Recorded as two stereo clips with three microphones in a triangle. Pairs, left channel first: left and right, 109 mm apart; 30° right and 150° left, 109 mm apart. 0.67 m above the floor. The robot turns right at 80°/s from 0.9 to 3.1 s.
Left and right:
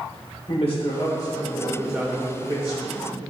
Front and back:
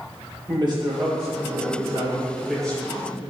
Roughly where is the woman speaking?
Left.